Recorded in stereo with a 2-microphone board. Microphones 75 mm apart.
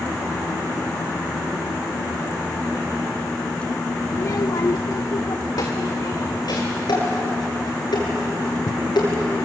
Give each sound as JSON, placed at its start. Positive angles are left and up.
{"t": 4.1, "sound": "a child speaking", "side_deg": 35, "distance_m": 0.5}
{"t": 6.9, "sound": "dishes clattering", "side_deg": 75, "distance_m": 8.0}